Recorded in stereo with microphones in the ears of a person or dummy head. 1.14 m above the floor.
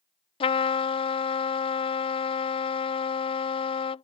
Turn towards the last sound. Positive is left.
turn(degrees=25)  # may be behind; listen again after turning